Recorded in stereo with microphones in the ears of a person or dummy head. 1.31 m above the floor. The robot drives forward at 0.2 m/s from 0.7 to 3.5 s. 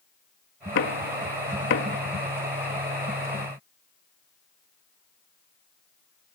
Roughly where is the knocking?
Left.